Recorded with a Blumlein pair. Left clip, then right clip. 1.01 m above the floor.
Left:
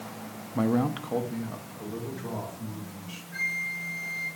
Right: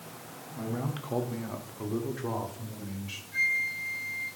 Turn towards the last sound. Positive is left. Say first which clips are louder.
# right 2 dB
turn(degrees=5)